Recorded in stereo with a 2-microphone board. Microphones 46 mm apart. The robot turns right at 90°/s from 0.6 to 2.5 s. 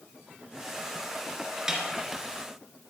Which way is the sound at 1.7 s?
15° right (ahead or behind).